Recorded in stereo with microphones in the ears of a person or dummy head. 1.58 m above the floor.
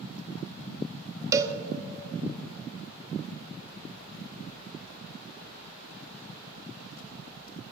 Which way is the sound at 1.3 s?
20° right (ahead or behind).